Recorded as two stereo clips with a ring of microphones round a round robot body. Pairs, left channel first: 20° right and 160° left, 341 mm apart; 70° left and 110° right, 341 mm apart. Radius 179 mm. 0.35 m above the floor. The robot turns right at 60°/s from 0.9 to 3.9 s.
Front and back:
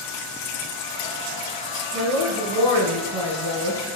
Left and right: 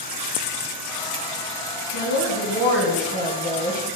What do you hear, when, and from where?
1.9 s a woman speaking: 105° left, 4.5 m; by 4.0 s 135° right, 4.5 m